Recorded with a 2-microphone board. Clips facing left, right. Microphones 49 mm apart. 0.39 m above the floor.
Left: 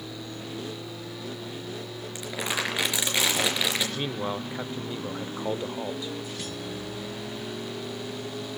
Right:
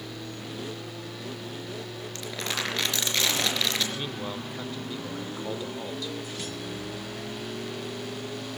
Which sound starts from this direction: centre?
Crumpling, at 2.1 s.